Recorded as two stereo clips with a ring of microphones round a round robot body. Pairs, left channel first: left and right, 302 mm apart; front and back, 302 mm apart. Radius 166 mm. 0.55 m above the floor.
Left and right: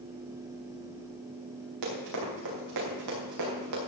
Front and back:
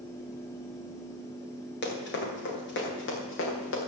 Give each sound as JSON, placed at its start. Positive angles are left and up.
{"t": 1.8, "sound": "running footsteps", "azimuth_deg": -55, "distance_m": 7.0}